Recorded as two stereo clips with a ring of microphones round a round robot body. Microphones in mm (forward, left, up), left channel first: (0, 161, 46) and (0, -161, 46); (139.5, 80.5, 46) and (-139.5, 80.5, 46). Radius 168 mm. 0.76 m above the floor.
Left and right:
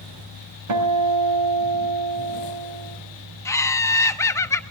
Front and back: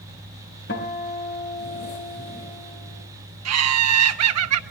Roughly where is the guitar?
Ahead right.